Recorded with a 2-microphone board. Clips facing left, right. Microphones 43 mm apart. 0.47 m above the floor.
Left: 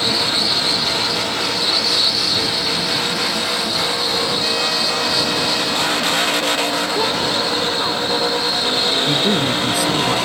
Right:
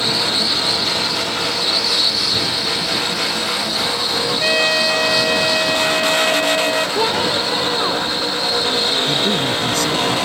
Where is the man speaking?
10° left (ahead or behind).